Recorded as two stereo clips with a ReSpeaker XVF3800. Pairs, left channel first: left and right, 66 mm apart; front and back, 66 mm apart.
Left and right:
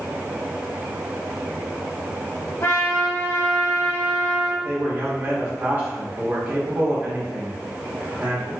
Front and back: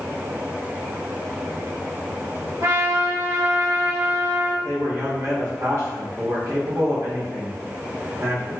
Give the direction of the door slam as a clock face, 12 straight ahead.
No door slam in this recording.